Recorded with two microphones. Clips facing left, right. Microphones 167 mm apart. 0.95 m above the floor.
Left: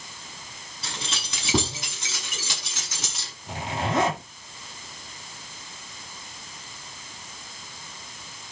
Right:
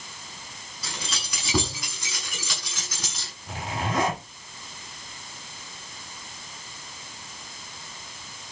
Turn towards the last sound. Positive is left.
turn(degrees=25)  # may be behind; listen again after turning